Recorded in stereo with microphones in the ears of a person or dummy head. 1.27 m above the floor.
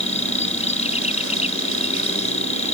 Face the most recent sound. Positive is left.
turn(degrees=40)  # may be behind; listen again after turning